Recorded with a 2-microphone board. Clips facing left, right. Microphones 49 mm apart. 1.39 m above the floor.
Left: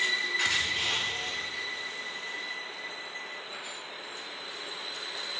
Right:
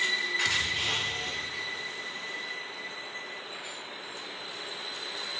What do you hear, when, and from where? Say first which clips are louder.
0.5 s a thud: even; 20° left (ahead or behind), 1.4 m